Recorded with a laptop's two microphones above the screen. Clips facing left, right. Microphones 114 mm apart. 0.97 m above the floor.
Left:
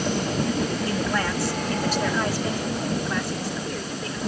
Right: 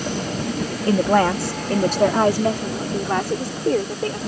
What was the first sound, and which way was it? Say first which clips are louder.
A woman speaking: right 8 dB; 50° right (ahead or behind).